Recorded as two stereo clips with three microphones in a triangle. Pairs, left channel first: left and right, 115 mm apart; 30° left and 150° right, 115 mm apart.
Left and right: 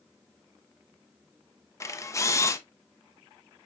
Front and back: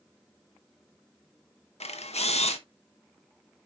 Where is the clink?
No clink in this recording.